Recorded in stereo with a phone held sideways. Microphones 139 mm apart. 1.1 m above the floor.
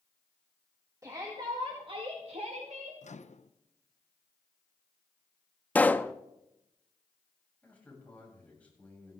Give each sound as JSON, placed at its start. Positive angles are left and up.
{"t": 1.0, "sound": "a shout", "side_deg": -25, "distance_m": 2.0}
{"t": 3.0, "sound": "a microwave", "side_deg": 65, "distance_m": 0.6}
{"t": 5.8, "sound": "a pop", "side_deg": 15, "distance_m": 0.5}
{"t": 7.6, "sound": "a man speaking", "side_deg": 10, "distance_m": 7.0}